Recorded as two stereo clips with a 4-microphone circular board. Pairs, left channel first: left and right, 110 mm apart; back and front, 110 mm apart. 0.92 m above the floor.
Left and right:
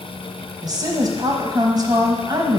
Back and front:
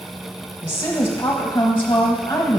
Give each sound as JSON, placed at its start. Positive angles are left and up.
{"t": 0.6, "sound": "a woman speaking", "azimuth_deg": -120, "distance_m": 0.9}